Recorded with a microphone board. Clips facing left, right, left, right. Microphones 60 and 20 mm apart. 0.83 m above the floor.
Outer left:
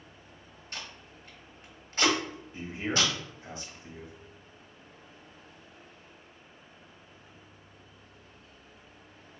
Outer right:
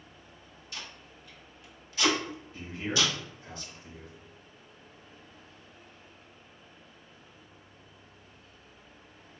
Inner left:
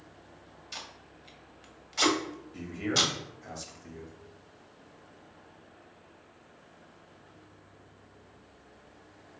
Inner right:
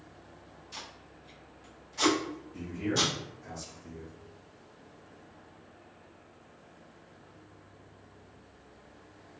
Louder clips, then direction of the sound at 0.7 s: Outer left 1 dB, inner left 2 dB; 45° left (ahead or behind).